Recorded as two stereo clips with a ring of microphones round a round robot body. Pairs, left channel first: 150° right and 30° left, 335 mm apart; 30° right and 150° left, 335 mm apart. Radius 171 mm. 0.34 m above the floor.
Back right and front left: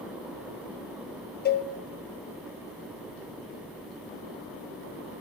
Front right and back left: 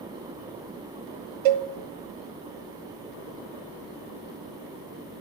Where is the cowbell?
145° left, 0.5 m.